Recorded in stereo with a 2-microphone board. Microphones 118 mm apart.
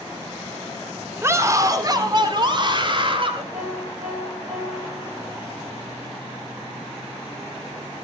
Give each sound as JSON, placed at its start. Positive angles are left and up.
{"t": 1.2, "sound": "a scream", "side_deg": -20, "distance_m": 1.2}
{"t": 3.5, "sound": "a piano", "side_deg": -45, "distance_m": 5.0}